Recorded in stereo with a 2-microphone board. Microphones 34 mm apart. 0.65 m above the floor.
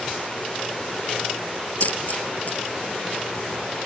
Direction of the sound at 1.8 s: 50° left (ahead or behind).